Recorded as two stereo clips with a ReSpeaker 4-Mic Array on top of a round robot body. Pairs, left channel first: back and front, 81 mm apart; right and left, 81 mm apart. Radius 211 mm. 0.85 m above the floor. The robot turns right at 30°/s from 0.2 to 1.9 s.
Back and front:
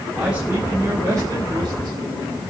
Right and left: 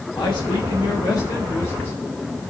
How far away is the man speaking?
About 3 m.